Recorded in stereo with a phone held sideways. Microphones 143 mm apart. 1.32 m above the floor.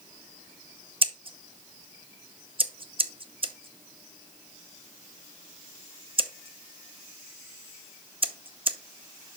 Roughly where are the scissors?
Right.